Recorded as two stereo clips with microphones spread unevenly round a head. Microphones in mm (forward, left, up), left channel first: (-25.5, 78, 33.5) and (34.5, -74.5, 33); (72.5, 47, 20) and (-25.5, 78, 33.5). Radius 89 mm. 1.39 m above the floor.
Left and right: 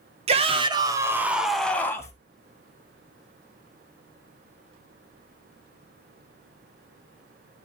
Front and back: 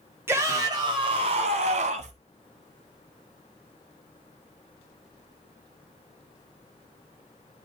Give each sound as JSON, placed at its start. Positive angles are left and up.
{"t": 0.3, "sound": "a shout", "azimuth_deg": -120, "distance_m": 1.7}